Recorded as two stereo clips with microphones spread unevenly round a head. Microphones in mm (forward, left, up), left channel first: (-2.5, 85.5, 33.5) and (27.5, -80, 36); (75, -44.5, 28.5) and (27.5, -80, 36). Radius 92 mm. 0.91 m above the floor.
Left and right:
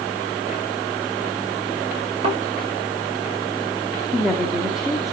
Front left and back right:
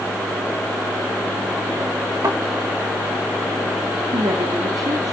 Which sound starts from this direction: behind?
A woman speaking, at 4.1 s.